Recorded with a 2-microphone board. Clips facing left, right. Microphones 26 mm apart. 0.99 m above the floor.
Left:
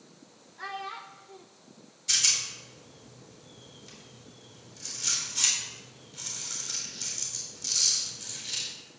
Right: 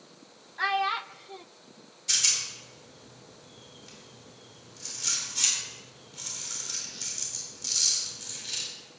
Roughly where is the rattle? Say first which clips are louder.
Left 1 dB; centre.